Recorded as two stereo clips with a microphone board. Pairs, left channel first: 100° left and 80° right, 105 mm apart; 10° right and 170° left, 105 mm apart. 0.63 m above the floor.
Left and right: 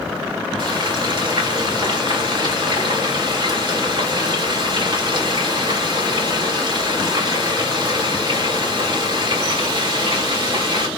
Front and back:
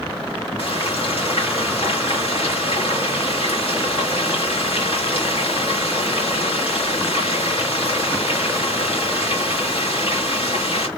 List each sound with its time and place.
0.6 s frying: 40° right, 3 m